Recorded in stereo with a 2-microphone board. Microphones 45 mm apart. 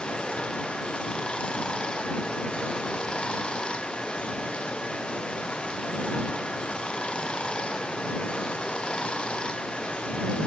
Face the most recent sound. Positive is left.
turn(degrees=20)  # may be behind; listen again after turning